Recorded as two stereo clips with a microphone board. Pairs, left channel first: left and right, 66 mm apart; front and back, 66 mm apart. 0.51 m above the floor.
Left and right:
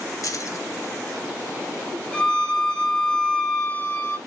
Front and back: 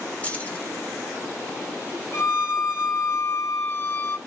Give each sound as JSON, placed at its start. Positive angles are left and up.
{"t": 0.2, "sound": "keys jangling", "azimuth_deg": 65, "distance_m": 0.9}
{"t": 2.1, "sound": "a violin", "azimuth_deg": 20, "distance_m": 0.7}